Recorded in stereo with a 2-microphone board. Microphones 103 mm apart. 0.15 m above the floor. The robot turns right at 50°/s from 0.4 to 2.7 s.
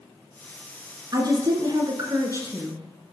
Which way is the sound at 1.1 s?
110° right.